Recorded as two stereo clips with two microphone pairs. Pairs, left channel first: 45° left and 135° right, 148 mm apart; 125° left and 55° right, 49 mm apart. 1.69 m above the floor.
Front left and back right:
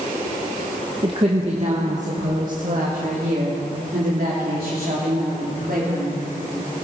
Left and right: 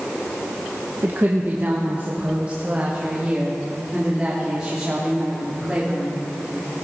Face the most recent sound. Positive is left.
turn(degrees=-140)